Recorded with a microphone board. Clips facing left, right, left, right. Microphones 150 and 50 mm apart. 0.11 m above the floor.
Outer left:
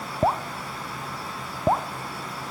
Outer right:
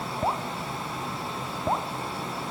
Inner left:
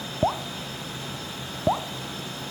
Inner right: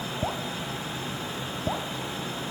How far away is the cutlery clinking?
No cutlery clinking in this recording.